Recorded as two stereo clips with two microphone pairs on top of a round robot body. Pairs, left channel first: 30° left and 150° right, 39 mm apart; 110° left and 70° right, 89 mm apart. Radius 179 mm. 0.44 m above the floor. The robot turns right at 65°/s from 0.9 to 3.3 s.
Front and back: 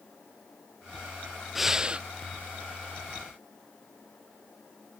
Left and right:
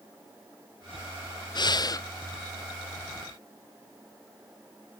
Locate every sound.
1.6 s breathing: 115° left, 0.6 m; by 2.1 s 150° left, 0.6 m